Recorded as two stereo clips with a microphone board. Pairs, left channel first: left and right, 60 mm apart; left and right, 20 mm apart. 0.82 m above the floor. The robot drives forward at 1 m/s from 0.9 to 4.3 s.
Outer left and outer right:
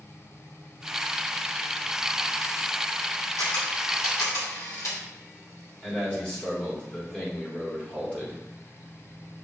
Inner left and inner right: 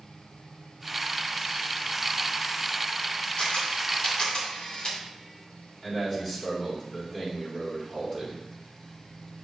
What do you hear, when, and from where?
3.4 s a camera shutter: 75° left (ahead or behind), 1.9 m; by 5.0 s 65° left (ahead or behind), 2 m
5.8 s a man speaking: 20° left (ahead or behind), 3 m